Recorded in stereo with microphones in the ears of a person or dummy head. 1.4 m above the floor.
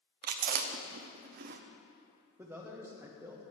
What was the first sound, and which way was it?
Chewing, 50° right (ahead or behind).